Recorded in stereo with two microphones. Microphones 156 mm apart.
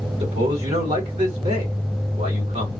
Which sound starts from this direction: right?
A man speaking, at 0.2 s.